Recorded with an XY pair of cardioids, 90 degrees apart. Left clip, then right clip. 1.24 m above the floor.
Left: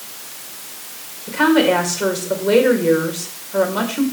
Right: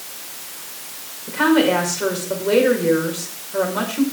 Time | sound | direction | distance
1.3 | a woman speaking | 25° left | 5.5 m